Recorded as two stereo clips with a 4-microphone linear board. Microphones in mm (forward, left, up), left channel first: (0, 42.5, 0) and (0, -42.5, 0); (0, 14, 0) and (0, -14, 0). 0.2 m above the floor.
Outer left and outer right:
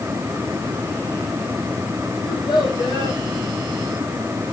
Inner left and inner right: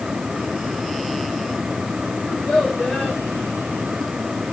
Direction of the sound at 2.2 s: 60° left (ahead or behind).